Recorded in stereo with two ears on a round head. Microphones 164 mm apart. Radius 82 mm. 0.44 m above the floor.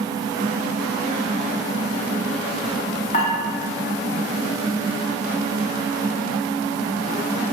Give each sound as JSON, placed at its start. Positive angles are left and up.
{"t": 3.1, "sound": "dishes clattering", "side_deg": 45, "distance_m": 0.9}